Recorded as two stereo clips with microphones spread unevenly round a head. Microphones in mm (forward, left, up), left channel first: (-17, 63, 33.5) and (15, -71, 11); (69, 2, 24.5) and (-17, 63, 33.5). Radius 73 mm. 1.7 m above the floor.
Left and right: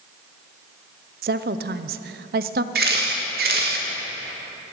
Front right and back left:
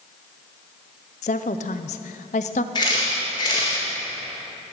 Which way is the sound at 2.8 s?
100° right.